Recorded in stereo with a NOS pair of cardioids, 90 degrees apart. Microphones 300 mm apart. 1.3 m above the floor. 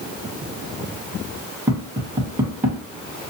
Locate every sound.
1.7 s tapping: 10° right, 1.7 m